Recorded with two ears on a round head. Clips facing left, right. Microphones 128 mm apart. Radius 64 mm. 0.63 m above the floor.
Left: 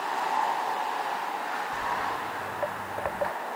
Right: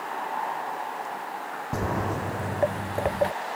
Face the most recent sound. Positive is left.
turn(degrees=-30)  # may be behind; listen again after turning